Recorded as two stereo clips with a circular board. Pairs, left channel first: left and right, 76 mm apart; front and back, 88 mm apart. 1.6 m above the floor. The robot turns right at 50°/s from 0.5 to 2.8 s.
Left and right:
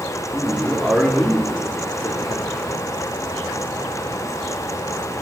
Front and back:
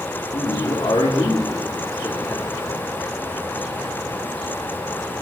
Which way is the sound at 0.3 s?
15° right.